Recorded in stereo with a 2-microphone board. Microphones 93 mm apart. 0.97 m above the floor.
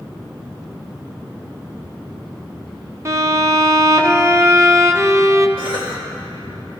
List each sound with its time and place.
3.0 s a violin: 35° right (ahead or behind), 0.6 m
5.6 s a cough: 75° right (ahead or behind), 3.5 m